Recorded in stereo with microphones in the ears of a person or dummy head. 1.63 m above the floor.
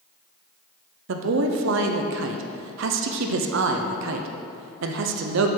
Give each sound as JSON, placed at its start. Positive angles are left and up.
{"t": 1.1, "sound": "a man speaking", "side_deg": -70, "distance_m": 0.6}